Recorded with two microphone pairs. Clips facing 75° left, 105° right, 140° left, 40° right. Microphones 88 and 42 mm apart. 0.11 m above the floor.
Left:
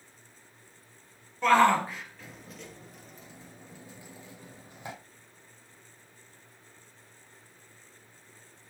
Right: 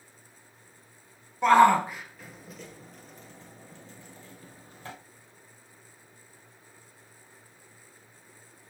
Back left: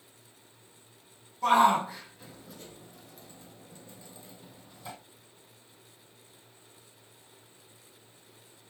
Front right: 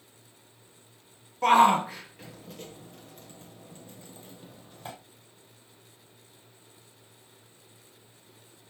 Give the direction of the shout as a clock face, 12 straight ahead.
1 o'clock.